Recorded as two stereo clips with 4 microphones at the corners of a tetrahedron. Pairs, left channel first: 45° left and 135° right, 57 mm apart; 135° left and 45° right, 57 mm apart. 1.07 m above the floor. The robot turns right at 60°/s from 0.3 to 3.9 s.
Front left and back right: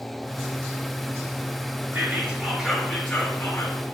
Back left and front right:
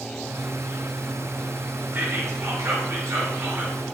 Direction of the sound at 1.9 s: 90° right.